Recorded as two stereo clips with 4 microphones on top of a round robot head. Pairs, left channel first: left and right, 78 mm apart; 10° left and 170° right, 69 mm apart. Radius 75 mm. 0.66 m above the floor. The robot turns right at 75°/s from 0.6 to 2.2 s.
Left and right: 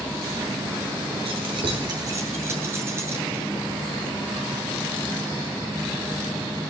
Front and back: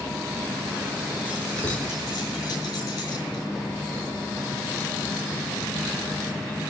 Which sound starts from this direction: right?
Keys jangling, at 1.2 s.